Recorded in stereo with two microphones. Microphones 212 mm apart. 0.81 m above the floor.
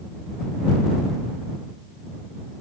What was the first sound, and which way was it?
Only background noise.